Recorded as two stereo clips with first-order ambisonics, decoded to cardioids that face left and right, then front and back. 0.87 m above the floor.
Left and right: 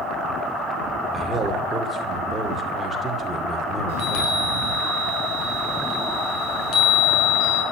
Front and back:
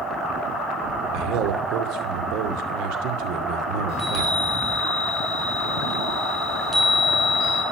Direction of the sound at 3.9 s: 120° left.